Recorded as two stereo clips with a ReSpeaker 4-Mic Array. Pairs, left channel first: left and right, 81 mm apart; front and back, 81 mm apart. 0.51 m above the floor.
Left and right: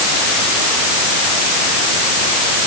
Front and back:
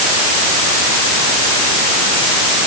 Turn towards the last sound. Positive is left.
No sound to turn to.